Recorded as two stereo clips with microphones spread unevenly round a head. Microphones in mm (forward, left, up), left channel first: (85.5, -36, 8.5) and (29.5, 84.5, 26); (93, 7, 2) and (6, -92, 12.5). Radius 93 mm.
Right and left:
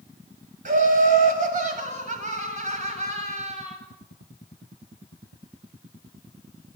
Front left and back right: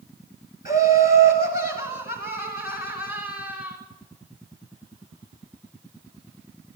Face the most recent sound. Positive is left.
turn(degrees=80)